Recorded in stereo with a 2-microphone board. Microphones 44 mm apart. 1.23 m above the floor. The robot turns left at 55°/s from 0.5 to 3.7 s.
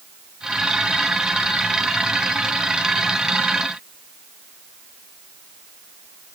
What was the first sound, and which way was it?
Only background noise.